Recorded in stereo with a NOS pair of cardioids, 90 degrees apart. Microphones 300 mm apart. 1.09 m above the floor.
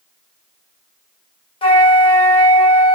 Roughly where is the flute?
Ahead.